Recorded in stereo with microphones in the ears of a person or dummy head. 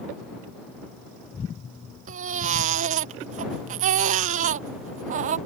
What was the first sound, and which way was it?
A baby crying, 35° right (ahead or behind).